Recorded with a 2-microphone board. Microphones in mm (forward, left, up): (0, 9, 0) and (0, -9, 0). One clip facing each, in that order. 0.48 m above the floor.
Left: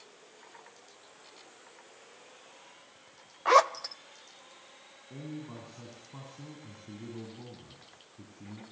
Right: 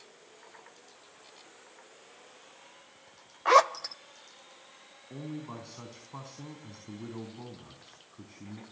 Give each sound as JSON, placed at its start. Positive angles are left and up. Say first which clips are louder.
{"t": 3.5, "sound": "a zipper", "louder": "right 1 dB", "side_deg": -10, "distance_m": 0.6}
{"t": 5.1, "sound": "a man speaking", "louder": "right 2 dB", "side_deg": -55, "distance_m": 4.0}